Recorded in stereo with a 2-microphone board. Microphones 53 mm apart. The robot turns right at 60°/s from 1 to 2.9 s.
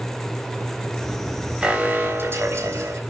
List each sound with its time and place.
1.6 s an alarm: 160° right, 3.5 m; by 3.0 s 85° right, 3.5 m